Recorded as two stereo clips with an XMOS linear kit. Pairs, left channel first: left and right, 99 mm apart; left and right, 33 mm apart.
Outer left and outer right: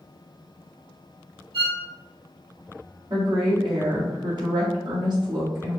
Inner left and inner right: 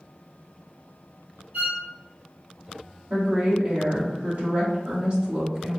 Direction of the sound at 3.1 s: 45° right (ahead or behind).